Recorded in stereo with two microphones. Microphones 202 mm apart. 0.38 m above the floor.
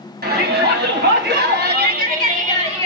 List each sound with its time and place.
0.2 s a shout: 55° right (ahead or behind), 2 m; by 2.9 s 35° right (ahead or behind), 1.9 m